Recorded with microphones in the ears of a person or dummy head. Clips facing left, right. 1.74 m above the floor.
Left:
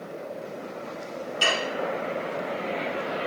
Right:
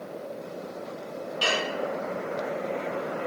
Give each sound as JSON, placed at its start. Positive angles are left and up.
{"t": 1.4, "sound": "dishes clattering", "side_deg": 35, "distance_m": 1.9}